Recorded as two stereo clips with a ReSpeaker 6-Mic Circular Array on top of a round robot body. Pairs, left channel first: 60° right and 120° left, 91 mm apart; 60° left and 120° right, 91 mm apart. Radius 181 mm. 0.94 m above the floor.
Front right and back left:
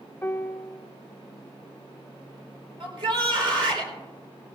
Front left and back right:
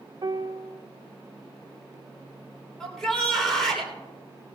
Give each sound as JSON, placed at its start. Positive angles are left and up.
{"t": 0.2, "sound": "a piano", "azimuth_deg": -120, "distance_m": 0.7}
{"t": 2.8, "sound": "a shout", "azimuth_deg": 145, "distance_m": 4.0}